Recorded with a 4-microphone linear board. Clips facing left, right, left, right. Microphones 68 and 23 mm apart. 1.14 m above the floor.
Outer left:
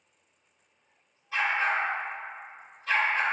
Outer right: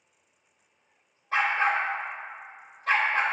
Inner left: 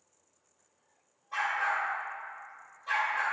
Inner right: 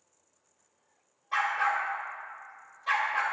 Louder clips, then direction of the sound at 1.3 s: Outer right 2 dB, inner right 3 dB; 50° right (ahead or behind).